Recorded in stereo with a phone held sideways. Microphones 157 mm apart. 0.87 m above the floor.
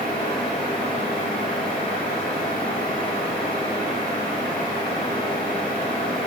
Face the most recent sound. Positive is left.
turn(degrees=40)  # may be behind; listen again after turning